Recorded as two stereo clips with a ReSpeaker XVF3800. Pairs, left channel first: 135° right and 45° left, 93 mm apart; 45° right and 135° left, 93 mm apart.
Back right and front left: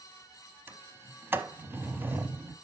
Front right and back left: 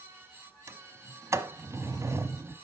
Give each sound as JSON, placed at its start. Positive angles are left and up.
{"t": 0.7, "sound": "a sliding door", "azimuth_deg": 100, "distance_m": 0.7}